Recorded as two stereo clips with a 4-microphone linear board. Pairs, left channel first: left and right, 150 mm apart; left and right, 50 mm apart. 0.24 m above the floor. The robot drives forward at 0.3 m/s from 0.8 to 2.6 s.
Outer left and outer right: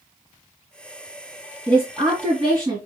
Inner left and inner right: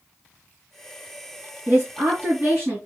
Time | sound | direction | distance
1.7 | a woman speaking | 25° right (ahead or behind) | 2.5 m